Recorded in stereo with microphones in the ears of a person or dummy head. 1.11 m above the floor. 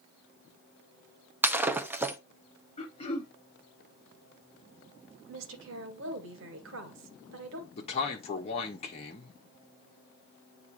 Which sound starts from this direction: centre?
Breaking glass, at 1.4 s.